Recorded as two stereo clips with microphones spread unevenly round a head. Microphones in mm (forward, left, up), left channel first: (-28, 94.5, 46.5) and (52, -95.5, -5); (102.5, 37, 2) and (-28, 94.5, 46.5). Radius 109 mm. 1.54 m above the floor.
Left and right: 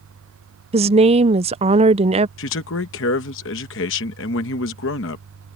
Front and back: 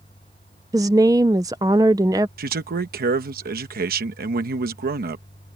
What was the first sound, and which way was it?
A woman speaking, 135° right.